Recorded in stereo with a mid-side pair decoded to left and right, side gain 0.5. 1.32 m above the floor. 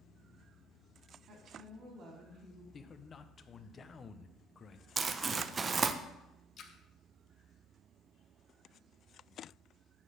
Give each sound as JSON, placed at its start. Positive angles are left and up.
{"t": 1.3, "sound": "a woman speaking", "azimuth_deg": -60, "distance_m": 2.5}
{"t": 2.7, "sound": "a man speaking", "azimuth_deg": 40, "distance_m": 0.7}
{"t": 5.0, "sound": "crumpling", "azimuth_deg": -35, "distance_m": 0.6}
{"t": 6.6, "sound": "a splash", "azimuth_deg": 55, "distance_m": 0.9}